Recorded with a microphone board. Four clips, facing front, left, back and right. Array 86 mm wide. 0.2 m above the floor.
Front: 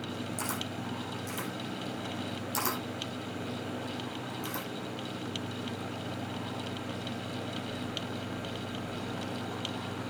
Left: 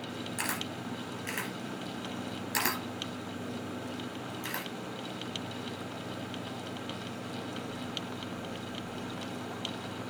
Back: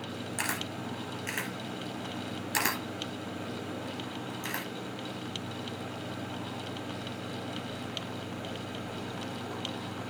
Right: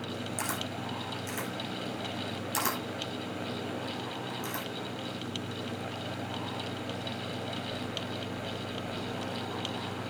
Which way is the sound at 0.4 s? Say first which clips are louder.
Even, back 1 dB; 160° left.